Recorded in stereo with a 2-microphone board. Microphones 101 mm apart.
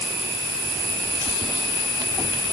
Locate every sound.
Only background noise.